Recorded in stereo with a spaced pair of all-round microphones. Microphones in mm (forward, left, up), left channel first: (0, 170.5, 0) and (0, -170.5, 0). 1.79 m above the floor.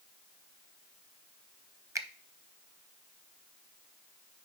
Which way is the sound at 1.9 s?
10° right (ahead or behind).